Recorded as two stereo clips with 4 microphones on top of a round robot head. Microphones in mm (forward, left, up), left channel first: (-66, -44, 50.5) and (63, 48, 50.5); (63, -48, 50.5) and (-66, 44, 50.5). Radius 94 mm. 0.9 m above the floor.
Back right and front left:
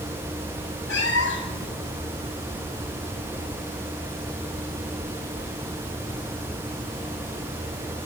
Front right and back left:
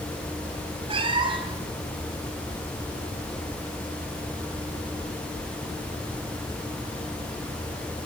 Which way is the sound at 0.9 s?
155° right.